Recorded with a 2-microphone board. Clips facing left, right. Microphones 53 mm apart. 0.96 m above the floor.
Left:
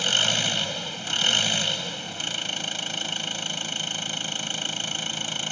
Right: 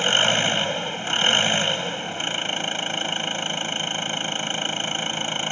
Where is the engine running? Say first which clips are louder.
Right 5 dB; 30° right (ahead or behind).